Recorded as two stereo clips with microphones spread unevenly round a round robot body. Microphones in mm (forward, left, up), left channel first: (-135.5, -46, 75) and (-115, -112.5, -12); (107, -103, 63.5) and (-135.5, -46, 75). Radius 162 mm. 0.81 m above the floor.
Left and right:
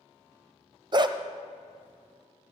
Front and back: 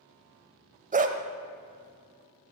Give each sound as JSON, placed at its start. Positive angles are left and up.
{"t": 0.9, "sound": "a dog barking", "azimuth_deg": -140, "distance_m": 1.0}